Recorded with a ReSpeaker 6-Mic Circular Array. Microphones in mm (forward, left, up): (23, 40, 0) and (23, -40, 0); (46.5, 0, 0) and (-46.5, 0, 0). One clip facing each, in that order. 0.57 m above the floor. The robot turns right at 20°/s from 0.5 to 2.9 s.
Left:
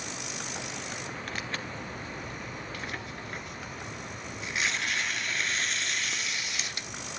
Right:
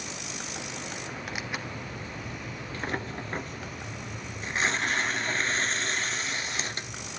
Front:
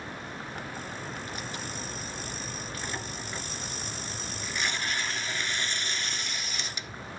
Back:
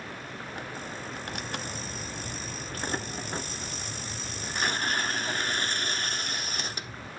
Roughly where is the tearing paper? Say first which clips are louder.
Right 1 dB, back 1 dB; behind.